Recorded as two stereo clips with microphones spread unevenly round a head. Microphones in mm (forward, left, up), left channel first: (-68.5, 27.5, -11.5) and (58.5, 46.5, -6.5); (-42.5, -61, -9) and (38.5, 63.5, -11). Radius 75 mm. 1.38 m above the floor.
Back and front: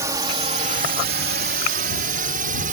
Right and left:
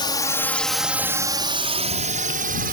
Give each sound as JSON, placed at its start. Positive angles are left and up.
{"t": 0.0, "sound": "a drone", "azimuth_deg": -60}